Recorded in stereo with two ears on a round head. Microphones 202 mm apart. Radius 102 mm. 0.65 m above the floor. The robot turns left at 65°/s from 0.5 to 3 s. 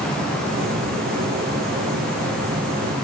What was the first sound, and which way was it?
Only background noise.